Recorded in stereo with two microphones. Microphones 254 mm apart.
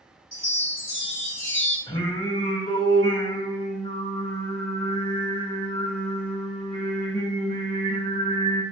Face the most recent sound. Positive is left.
turn(degrees=20)  # may be behind; listen again after turning